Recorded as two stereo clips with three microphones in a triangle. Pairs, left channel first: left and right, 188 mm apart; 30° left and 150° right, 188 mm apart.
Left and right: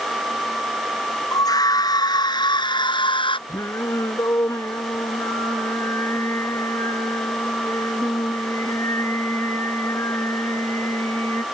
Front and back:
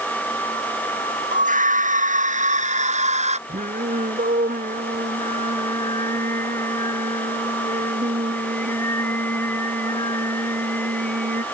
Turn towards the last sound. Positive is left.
turn(degrees=165)